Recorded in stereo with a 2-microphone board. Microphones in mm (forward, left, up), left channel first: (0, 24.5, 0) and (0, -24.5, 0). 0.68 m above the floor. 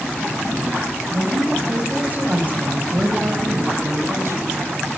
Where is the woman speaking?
25° right (ahead or behind), 4.5 m; by 4.6 s 60° right (ahead or behind), 4 m.